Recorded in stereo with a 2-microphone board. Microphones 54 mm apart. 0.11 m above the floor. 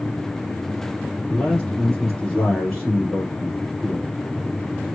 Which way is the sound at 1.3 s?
5° left (ahead or behind).